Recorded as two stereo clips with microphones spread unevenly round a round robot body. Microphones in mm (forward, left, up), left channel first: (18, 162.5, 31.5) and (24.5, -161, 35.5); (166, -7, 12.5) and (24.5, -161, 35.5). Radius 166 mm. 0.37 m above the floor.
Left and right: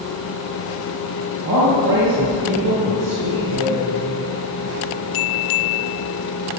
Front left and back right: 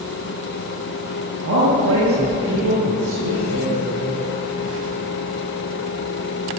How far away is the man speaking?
About 7 m.